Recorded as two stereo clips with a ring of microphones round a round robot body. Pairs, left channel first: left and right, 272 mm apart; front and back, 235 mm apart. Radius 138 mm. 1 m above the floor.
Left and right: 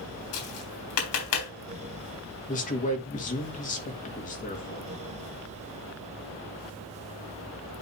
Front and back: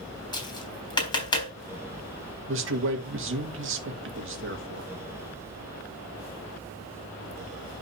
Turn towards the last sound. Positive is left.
turn(degrees=150)